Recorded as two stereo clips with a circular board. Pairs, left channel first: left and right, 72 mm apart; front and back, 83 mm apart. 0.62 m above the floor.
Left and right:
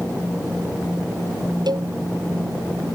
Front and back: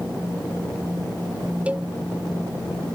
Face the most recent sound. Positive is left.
turn(degrees=-105)